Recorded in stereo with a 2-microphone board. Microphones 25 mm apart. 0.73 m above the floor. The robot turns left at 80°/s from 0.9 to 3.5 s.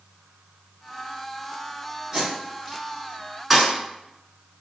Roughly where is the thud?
Centre.